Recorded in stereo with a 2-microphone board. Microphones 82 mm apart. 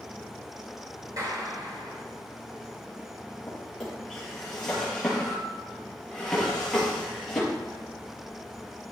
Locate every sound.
1.2 s a clap: 45° right (ahead or behind), 7.5 m
3.5 s a drawer: 5° left (ahead or behind), 7 m